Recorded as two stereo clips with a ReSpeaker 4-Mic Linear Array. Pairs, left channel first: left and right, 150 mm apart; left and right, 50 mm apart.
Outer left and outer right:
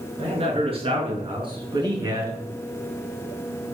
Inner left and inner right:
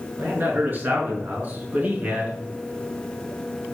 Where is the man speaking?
40° right (ahead or behind), 6 m; by 2.3 s 25° right (ahead or behind), 4.5 m.